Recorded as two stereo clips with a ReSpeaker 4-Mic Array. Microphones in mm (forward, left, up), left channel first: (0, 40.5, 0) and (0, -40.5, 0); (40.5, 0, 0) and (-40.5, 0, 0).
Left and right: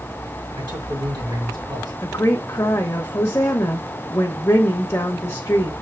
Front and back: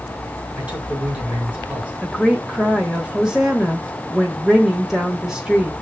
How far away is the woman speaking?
About 1.2 m.